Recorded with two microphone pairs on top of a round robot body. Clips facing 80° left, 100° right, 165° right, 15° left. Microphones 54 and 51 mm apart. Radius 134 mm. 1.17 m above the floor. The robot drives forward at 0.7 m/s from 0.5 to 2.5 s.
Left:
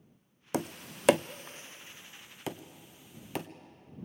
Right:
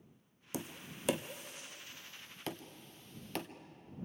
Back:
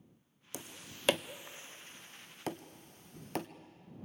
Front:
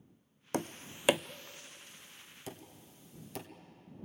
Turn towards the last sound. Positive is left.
turn(degrees=160)